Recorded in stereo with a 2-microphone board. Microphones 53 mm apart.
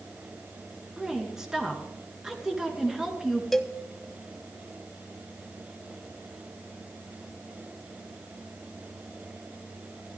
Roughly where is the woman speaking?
Centre.